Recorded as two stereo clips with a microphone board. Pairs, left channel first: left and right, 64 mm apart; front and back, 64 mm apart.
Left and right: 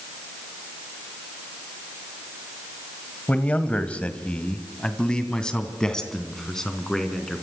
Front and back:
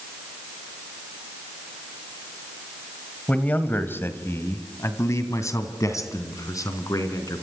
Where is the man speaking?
45° left, 1.7 m; by 7.4 s 5° left, 4 m.